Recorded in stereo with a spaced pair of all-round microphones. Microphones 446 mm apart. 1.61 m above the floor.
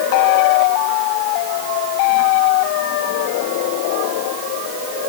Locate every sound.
Only background noise.